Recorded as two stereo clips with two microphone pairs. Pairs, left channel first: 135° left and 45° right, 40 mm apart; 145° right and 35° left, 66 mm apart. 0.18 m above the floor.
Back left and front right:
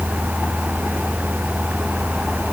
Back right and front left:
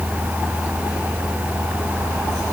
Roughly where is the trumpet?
I don't hear a trumpet.